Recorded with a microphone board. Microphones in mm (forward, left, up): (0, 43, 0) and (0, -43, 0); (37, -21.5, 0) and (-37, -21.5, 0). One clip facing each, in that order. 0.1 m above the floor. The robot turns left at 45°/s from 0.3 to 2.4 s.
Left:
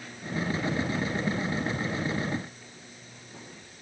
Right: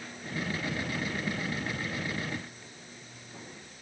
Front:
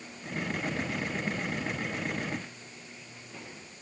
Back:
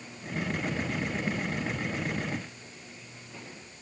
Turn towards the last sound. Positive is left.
No sound to turn to.